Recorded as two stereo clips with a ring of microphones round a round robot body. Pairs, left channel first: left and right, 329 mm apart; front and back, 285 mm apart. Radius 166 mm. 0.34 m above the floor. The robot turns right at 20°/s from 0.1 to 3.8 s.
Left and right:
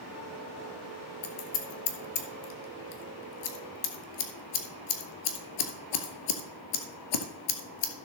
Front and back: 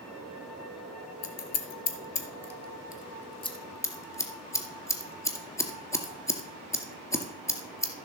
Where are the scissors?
30° left, 2 m; by 7.9 s 80° left, 2 m.